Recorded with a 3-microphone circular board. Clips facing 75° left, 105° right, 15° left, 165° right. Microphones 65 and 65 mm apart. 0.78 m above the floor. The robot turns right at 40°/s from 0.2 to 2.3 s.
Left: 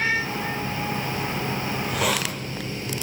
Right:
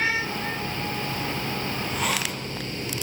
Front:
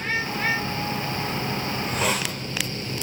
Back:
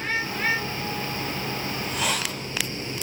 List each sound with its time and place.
1.7 s a hiss: 50° left, 3 m; by 2.3 s 75° left, 3 m